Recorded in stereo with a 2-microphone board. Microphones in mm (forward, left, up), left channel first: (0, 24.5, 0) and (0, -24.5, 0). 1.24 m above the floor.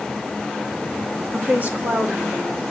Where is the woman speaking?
45° right (ahead or behind), 2.5 m; by 2.6 s 20° right (ahead or behind), 3 m.